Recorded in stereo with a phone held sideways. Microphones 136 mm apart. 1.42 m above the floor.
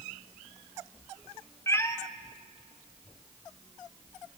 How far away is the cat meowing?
About 1.0 m.